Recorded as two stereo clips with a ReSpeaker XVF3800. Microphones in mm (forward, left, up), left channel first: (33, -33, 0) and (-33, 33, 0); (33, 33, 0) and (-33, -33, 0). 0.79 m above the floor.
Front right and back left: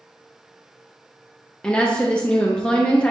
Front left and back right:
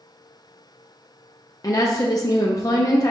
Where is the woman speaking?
25° left, 0.5 m.